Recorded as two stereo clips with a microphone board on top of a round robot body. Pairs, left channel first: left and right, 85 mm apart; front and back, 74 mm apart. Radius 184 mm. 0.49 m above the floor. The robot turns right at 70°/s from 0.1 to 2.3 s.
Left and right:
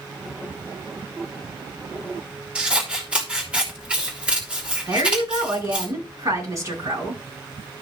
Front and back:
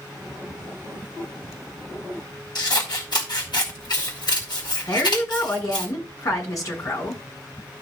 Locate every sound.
2.5 s scissors: 15° right, 3.5 m
4.9 s a woman speaking: 40° right, 6 m